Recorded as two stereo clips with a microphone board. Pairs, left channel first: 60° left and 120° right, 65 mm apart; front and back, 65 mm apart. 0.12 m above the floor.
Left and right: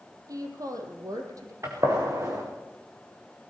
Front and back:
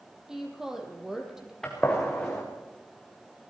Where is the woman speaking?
100° right, 4 m.